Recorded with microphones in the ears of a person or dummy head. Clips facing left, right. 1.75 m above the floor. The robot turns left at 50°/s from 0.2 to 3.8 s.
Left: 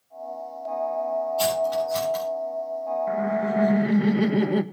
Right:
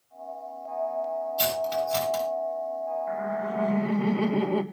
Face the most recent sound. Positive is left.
turn(degrees=20)